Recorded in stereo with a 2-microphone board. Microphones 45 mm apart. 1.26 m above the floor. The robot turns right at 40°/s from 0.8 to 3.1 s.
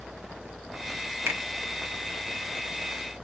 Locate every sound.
1.3 s a finger snap: 75° right (ahead or behind), 0.9 m; by 1.4 s 80° right, 0.9 m